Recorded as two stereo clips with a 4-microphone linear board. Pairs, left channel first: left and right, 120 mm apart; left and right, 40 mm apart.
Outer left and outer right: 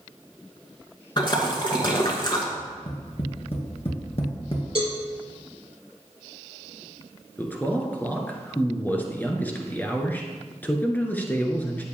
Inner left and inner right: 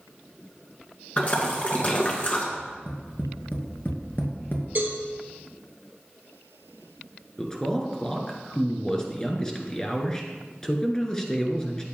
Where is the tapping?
50° left (ahead or behind), 2 m.